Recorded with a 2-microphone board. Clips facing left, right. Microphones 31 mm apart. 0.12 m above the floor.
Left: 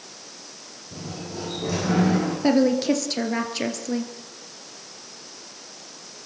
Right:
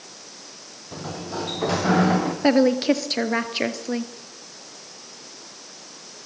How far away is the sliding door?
About 4.5 m.